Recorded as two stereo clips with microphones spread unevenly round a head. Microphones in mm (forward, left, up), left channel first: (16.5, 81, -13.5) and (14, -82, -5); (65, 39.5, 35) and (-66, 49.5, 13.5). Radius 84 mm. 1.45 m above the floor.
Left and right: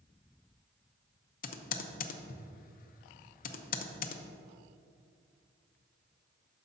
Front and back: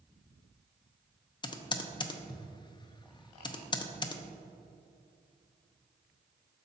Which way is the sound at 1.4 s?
50° left.